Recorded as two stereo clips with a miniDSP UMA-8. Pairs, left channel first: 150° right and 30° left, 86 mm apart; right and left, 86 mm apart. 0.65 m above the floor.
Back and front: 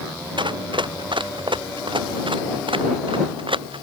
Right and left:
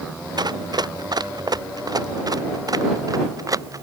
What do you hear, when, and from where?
0.4 s running footsteps: 55° left; by 3.8 s 40° left